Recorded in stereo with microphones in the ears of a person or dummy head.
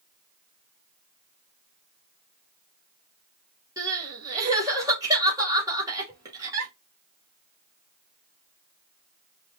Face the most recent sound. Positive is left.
turn(degrees=-20)  # may be behind; listen again after turning